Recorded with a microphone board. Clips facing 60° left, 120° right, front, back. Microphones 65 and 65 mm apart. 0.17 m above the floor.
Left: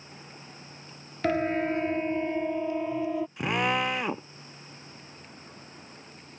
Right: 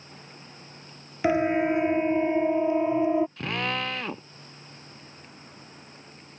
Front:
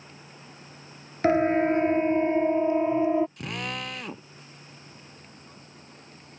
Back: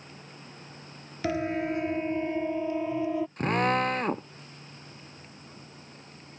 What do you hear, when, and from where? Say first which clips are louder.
1.2 s a siren: right 4 dB, front 8 dB; 45° right; by 3.3 s 60° right
3.4 s a drill: left 3 dB, back 9 dB; 130° left